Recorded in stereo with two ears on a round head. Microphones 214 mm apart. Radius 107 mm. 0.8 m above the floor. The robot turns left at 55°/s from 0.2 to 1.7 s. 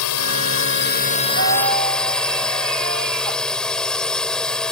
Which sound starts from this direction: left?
A drone, at 0.0 s.